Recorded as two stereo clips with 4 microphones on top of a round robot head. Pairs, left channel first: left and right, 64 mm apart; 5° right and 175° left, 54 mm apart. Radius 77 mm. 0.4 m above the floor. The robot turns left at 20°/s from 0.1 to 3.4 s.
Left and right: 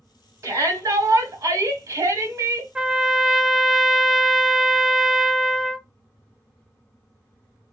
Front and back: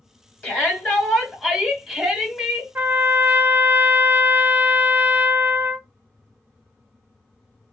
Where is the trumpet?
160° right, 0.6 m; by 5.9 s 170° right, 0.6 m.